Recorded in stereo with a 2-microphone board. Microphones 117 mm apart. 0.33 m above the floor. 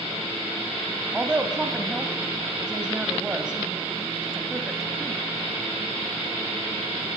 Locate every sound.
1.1 s a woman speaking: 5° right (ahead or behind), 2.5 m